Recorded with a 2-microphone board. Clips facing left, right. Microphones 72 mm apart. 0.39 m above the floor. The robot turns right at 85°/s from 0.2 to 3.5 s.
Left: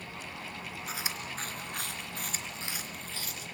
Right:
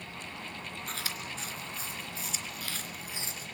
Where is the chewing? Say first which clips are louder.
Left 1 dB; 5° left (ahead or behind), 3 m; by 3.5 s 45° right (ahead or behind), 3 m.